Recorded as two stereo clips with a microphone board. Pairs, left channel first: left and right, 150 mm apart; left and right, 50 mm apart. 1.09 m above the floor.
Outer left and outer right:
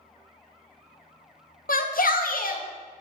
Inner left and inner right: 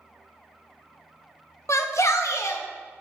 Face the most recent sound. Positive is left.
turn(degrees=65)  # may be behind; listen again after turning